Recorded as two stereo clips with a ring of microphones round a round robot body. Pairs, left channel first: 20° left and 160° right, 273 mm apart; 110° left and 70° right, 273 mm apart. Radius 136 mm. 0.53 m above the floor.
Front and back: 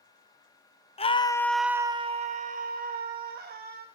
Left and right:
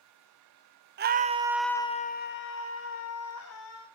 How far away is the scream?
About 0.9 m.